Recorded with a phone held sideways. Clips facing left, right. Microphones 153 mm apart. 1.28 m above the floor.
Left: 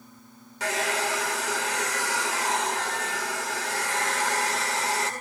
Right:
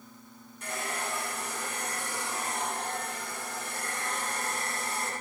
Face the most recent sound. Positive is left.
turn(degrees=75)  # may be behind; listen again after turning